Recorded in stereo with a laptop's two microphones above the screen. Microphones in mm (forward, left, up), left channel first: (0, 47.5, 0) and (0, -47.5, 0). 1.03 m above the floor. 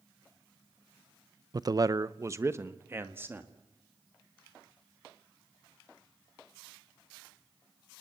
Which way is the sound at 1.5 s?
40° right (ahead or behind).